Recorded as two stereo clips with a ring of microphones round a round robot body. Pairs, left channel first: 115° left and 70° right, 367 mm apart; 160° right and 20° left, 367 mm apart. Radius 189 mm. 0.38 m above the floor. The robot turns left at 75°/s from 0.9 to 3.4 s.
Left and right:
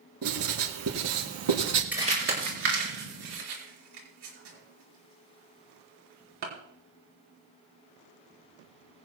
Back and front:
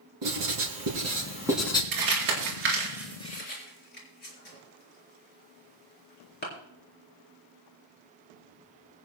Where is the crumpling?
20° left, 4.5 m; by 6.5 s 95° right, 4.5 m.